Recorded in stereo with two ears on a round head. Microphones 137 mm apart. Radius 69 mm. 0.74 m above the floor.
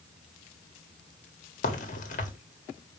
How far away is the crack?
About 1.7 m.